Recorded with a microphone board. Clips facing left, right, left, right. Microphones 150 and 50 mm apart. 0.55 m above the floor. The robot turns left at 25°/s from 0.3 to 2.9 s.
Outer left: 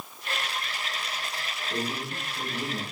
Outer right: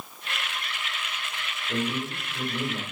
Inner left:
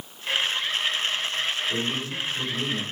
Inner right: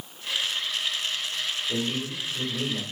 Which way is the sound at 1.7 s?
60° right (ahead or behind).